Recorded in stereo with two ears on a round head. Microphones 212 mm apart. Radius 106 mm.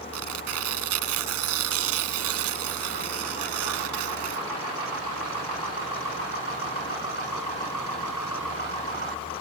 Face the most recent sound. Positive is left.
turn(degrees=-70)  # may be behind; listen again after turning